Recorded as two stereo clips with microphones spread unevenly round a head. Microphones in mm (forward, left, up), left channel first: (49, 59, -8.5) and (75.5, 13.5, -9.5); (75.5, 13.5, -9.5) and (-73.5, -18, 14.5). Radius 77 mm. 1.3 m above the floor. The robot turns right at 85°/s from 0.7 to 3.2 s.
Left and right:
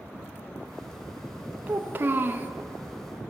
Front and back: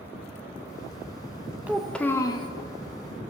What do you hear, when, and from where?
1.7 s a child speaking: 105° right, 0.6 m; by 2.5 s 35° right, 0.6 m